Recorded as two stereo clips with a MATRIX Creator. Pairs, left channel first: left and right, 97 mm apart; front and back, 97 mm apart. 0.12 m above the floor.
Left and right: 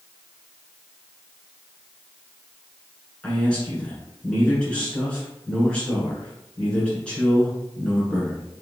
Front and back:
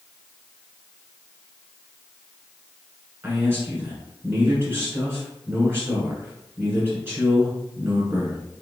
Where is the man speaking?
155° left, 1.5 m.